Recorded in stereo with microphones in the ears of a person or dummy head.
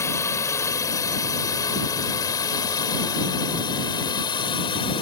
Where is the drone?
10° left (ahead or behind); by 5.0 s 20° left (ahead or behind).